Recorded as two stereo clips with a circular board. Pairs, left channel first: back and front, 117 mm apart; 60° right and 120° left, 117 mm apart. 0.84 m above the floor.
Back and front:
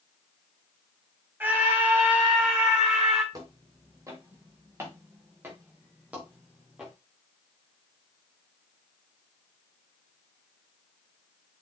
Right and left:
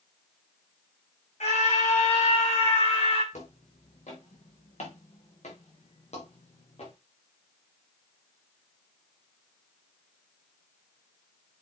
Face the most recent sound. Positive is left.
turn(degrees=-85)